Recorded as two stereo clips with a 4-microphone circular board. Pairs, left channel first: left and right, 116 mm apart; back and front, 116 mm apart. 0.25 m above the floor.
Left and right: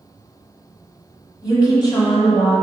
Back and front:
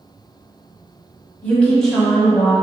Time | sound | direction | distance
1.4 | a woman speaking | 115° left | 1.4 m